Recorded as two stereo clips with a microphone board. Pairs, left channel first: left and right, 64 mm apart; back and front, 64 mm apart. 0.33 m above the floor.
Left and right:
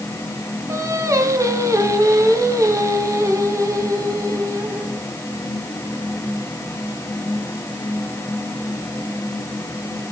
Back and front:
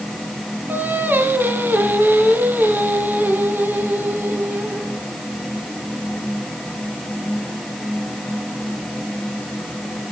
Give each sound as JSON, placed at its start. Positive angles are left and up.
{"t": 0.7, "sound": "singing", "azimuth_deg": -55, "distance_m": 1.5}